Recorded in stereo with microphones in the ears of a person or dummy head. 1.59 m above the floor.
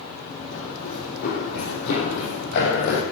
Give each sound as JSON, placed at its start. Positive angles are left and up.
{"t": 0.3, "sound": "running footsteps", "side_deg": 45, "distance_m": 4.5}